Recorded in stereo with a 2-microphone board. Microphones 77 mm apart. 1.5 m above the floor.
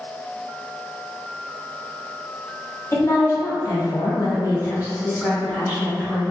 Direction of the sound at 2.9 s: 40° left (ahead or behind).